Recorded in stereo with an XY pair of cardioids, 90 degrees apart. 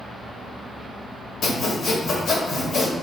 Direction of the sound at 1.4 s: 70° left.